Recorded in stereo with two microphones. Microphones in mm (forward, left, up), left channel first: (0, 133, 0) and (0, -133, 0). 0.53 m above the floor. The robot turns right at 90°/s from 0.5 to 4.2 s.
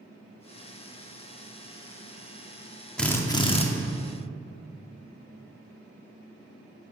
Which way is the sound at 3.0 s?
Centre (ahead or behind).